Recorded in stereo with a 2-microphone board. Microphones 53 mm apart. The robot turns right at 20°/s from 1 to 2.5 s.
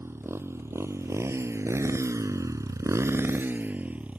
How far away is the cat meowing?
I don't hear a cat meowing.